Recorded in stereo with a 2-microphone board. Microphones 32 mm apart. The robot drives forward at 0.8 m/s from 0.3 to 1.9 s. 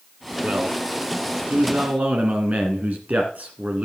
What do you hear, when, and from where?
0.4 s a man speaking: 60° right (ahead or behind), 2 m; by 3.9 s 55° right (ahead or behind), 2 m